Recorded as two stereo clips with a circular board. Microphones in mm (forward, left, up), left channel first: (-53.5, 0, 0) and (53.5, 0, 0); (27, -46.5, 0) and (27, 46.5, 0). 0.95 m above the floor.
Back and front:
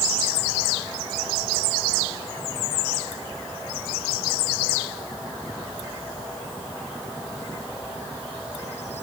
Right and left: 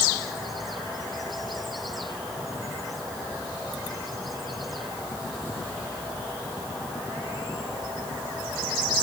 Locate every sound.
Only background noise.